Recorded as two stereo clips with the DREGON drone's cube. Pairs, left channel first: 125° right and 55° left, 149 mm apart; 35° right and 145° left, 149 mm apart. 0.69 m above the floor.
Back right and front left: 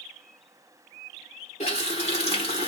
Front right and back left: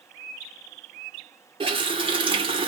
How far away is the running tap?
About 1.1 m.